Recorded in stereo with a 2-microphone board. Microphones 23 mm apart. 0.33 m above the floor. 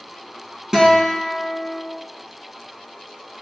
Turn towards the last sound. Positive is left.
turn(degrees=-30)  # may be behind; listen again after turning